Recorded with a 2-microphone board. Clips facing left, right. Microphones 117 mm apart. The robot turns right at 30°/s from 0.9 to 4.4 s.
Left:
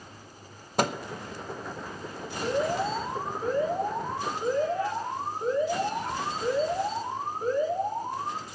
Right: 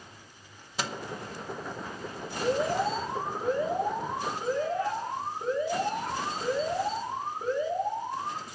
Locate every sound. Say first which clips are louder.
0.8 s a microwave: left 8 dB; 50° left (ahead or behind), 0.7 m
2.4 s an alarm: even; 60° right, 7.5 m; by 8.4 s straight ahead, 7.5 m